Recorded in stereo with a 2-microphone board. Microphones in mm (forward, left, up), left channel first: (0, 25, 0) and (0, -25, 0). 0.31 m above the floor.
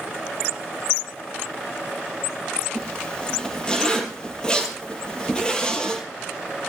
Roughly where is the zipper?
Centre.